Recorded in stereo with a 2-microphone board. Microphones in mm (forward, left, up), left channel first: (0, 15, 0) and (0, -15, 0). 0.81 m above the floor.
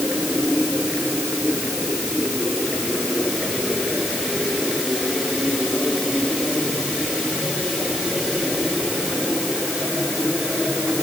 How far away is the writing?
I don't hear writing.